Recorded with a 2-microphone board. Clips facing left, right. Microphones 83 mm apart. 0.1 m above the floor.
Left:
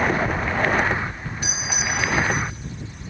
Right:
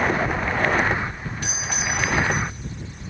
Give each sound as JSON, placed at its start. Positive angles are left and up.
{"t": 1.4, "sound": "a doorbell", "side_deg": 10, "distance_m": 3.5}